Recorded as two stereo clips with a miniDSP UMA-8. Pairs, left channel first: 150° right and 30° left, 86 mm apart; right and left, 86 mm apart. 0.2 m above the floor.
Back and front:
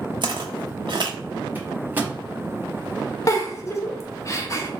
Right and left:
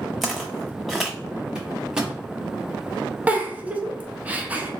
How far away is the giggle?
About 0.6 m.